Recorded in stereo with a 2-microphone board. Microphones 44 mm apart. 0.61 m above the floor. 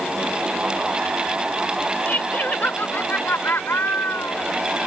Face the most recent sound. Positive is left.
turn(degrees=65)  # may be behind; listen again after turning